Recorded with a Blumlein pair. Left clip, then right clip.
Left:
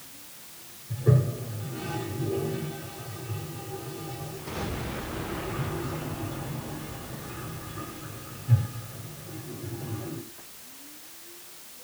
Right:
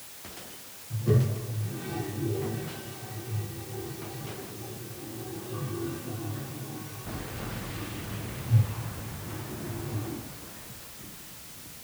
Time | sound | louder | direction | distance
0.9 | a toilet flushing | left 1 dB | 60° left | 3 m